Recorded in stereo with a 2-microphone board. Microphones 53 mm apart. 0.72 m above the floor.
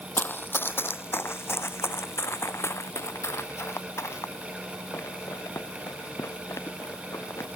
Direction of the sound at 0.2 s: 35° left (ahead or behind).